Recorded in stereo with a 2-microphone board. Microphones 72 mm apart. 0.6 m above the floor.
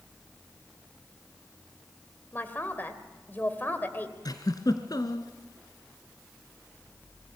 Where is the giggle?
65° left (ahead or behind), 1.9 m.